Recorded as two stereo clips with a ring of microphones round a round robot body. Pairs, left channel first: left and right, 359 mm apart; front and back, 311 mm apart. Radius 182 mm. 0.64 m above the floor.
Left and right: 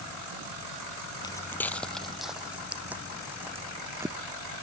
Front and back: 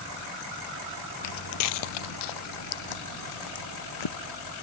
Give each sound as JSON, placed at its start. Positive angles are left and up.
{"t": 1.2, "sound": "footsteps", "azimuth_deg": 15}